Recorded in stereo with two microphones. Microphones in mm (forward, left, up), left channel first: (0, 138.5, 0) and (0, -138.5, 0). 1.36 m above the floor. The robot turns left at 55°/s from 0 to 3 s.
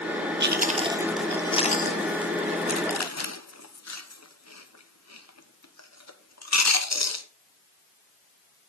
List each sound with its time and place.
0.4 s chewing: 40° right (ahead or behind), 1.1 m; by 7.2 s 65° left (ahead or behind), 1.1 m